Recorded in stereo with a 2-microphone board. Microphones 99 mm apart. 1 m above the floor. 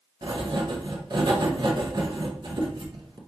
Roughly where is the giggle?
I don't hear a giggle.